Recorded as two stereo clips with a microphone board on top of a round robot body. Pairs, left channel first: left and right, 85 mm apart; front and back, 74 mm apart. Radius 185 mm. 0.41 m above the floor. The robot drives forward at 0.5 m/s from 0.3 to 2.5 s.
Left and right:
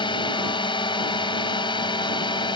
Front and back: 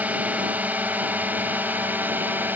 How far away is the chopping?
I don't hear chopping.